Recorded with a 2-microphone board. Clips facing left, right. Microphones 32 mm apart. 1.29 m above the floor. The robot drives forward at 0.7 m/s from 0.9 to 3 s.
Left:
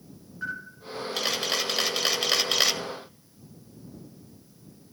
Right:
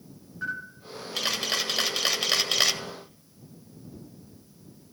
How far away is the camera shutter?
About 1.8 m.